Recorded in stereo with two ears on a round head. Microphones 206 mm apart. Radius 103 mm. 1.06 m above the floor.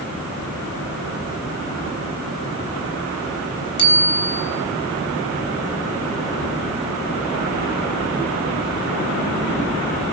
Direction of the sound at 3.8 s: 25° left (ahead or behind).